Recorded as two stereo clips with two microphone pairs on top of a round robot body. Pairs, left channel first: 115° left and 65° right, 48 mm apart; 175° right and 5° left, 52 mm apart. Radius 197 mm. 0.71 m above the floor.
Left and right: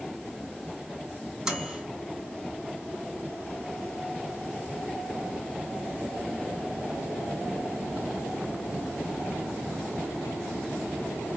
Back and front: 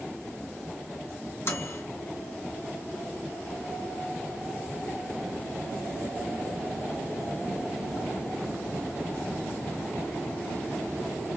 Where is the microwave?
140° right, 2 m.